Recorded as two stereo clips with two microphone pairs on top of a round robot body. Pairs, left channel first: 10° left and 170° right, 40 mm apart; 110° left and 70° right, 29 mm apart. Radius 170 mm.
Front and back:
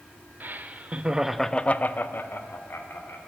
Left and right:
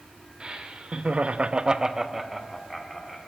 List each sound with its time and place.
0.4 s laughter: 130° right, 1.2 m; by 3.2 s 25° left, 1.9 m